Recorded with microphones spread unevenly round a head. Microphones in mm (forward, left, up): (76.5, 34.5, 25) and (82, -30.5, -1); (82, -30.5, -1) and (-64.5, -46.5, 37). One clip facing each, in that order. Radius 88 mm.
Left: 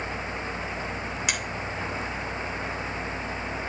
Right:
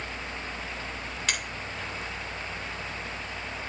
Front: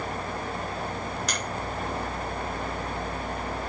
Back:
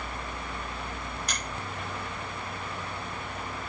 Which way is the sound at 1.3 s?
20° left.